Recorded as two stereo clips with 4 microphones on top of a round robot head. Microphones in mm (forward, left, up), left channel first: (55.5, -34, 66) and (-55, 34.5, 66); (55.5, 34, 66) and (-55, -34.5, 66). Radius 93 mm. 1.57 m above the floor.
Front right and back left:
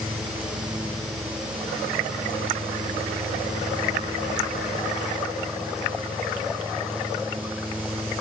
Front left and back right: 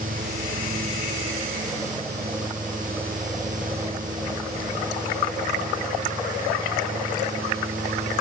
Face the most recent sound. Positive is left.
No sound to turn to.